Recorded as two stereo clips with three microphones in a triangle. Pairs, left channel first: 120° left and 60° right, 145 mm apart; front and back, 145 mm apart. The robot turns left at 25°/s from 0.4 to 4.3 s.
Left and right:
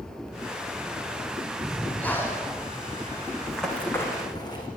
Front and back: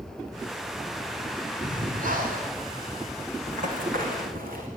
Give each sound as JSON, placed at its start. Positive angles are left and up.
{"t": 1.6, "sound": "breathing", "azimuth_deg": -150, "distance_m": 5.0}
{"t": 3.5, "sound": "running footsteps", "azimuth_deg": -150, "distance_m": 5.0}